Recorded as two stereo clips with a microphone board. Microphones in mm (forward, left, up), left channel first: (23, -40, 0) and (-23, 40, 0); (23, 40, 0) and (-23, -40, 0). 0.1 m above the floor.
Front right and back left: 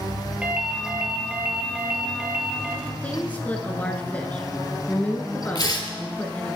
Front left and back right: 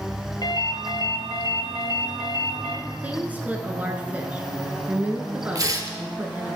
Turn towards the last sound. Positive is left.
turn(degrees=-85)